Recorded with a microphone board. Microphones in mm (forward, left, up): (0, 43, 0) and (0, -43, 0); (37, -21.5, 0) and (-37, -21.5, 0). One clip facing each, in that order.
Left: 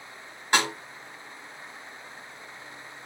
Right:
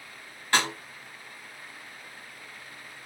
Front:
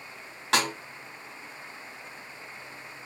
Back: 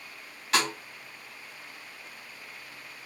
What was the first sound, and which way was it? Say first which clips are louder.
A snare drum: left 1 dB, front 1 dB; 15° left.